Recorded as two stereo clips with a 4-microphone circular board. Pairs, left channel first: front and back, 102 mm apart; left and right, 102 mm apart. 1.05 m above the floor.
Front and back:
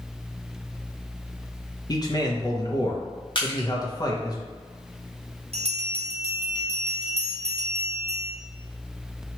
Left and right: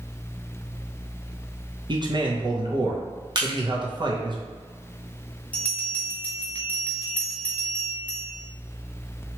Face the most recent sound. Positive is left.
turn(degrees=170)